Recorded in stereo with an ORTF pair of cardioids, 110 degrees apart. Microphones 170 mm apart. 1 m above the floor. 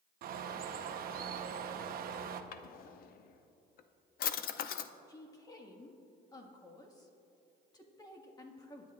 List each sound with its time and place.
0.2 s a bird: 60° right, 1.0 m
2.5 s a drawer: 65° left, 0.7 m
5.1 s a woman speaking: 25° left, 1.8 m